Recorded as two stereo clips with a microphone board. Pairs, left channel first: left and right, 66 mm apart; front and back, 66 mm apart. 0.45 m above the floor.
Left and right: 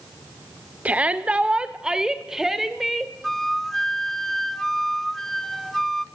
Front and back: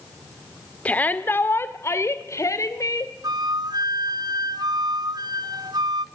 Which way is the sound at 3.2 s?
175° left.